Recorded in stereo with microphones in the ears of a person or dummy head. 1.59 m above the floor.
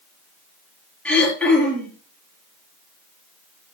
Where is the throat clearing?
5° left (ahead or behind), 5 m.